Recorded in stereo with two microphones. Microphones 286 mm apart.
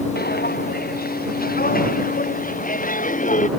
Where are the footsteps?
35° left (ahead or behind); by 3.5 s 25° left (ahead or behind).